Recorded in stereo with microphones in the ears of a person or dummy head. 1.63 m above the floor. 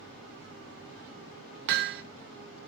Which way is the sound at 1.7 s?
60° right (ahead or behind).